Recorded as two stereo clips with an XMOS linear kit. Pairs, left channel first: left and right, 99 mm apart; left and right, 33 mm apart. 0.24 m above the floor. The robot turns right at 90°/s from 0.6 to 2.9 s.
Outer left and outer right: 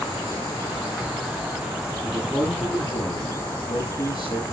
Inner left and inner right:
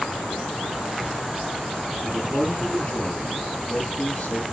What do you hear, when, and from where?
2.0 s a man speaking: 35° right, 6 m; by 4.4 s 45° left, 6 m